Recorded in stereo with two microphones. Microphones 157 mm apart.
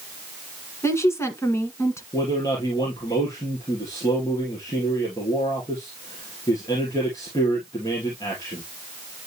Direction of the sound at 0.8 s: 15° left (ahead or behind).